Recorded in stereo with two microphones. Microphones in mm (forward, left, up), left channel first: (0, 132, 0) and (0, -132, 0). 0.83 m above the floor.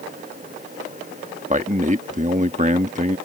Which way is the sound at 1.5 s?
30° right (ahead or behind).